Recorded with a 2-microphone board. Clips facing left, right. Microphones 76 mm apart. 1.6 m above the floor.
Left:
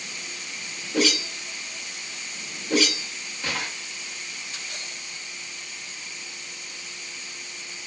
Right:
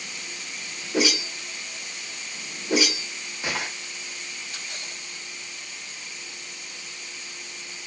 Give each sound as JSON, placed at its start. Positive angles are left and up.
{"t": 0.9, "sound": "a whoosh", "side_deg": -15, "distance_m": 0.8}